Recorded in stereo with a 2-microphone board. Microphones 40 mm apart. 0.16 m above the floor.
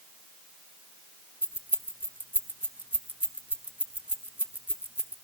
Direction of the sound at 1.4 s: 50° right (ahead or behind).